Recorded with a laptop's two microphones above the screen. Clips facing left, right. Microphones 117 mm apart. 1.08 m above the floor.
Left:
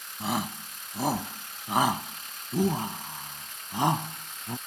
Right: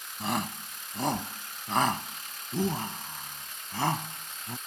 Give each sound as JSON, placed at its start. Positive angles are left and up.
{"t": 0.2, "sound": "a shout", "side_deg": 5}